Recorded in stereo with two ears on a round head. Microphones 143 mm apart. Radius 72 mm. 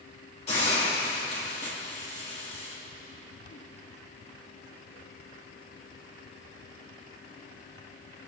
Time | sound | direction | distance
0.5 | a hiss | 45° left (ahead or behind) | 5 m